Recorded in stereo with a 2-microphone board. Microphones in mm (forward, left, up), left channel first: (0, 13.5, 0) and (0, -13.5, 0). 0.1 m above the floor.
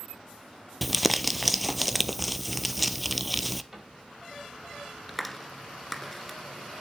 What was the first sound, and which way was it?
Crumpling, 5° right (ahead or behind).